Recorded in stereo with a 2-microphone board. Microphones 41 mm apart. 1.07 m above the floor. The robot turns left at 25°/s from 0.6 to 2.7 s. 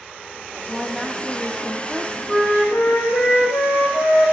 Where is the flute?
45° left (ahead or behind), 2.5 m; by 4.3 s 55° left (ahead or behind), 2.5 m.